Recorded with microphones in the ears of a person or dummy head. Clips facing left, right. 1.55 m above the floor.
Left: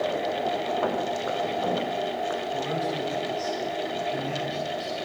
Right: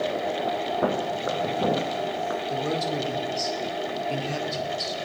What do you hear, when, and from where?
0.8 s footsteps: 30° right (ahead or behind), 4 m; by 2.4 s 40° right (ahead or behind), 4.5 m
2.5 s a man speaking: 55° right (ahead or behind), 5 m